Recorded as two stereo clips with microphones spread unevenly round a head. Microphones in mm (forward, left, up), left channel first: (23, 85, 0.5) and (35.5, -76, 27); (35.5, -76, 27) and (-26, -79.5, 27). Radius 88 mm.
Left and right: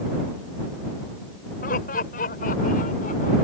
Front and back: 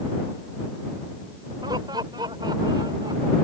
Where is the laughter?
140° left; by 3.3 s 145° left.